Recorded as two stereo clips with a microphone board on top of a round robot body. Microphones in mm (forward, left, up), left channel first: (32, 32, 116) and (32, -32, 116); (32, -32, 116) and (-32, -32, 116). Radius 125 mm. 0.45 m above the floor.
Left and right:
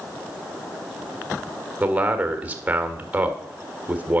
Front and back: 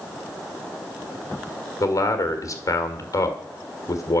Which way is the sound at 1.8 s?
25° right.